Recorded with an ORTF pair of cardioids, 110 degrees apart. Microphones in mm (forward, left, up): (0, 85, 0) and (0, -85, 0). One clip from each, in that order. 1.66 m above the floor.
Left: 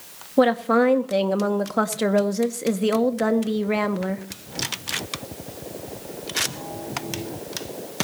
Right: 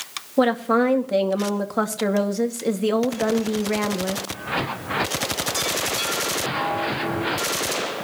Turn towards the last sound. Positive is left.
turn(degrees=15)